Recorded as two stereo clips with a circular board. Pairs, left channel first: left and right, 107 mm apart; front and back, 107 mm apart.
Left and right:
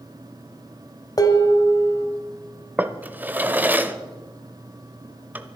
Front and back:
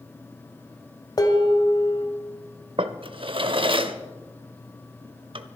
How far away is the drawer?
About 0.8 m.